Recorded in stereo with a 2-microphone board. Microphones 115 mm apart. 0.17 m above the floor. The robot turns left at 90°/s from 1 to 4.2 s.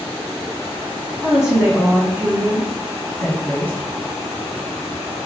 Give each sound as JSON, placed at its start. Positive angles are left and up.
{"t": 1.2, "sound": "a woman speaking", "side_deg": 0, "distance_m": 1.1}